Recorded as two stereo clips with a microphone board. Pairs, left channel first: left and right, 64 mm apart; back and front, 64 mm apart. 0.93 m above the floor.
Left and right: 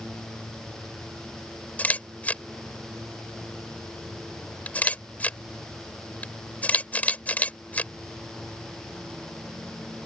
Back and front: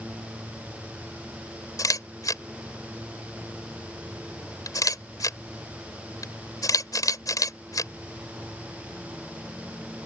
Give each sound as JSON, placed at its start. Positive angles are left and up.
{"t": 1.8, "sound": "a camera shutter", "azimuth_deg": 155}